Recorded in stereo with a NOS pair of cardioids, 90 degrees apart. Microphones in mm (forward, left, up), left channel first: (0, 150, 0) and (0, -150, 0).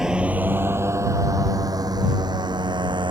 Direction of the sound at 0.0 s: Straight ahead.